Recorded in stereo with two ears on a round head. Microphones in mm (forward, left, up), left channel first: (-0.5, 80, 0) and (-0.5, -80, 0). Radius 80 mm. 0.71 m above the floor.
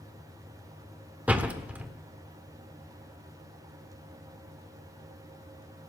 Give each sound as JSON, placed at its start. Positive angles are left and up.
{"t": 1.3, "sound": "a door slam", "side_deg": -10, "distance_m": 1.3}